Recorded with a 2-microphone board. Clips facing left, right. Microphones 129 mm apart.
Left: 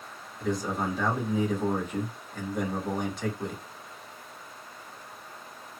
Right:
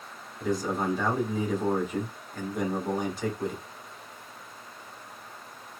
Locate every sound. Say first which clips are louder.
0.4 s a man speaking: right 1 dB; centre (ahead or behind), 1.5 m